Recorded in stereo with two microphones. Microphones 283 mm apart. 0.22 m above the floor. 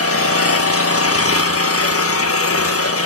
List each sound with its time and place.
0.0 s an engine running: 55° left (ahead or behind), 1.4 m